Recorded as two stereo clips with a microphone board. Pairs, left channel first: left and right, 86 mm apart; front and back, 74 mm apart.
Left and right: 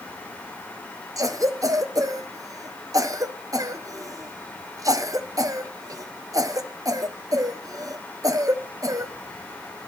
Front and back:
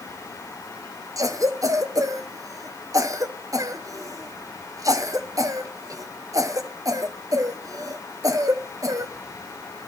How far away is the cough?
About 1.0 m.